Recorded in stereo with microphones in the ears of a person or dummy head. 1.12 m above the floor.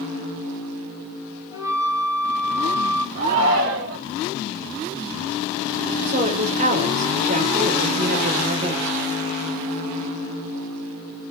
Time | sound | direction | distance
1.5 | a flute | 15° right (ahead or behind) | 6 m
3.1 | a shout | 55° right (ahead or behind) | 4 m
6.1 | a woman speaking | 45° right (ahead or behind) | 5.5 m